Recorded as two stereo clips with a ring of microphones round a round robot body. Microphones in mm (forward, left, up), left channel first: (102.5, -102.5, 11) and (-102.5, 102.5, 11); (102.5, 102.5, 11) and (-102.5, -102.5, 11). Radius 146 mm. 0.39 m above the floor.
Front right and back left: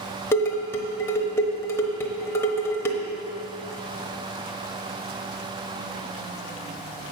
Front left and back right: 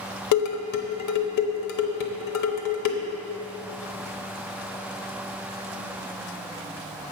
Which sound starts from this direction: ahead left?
Dishes clattering, at 0.3 s.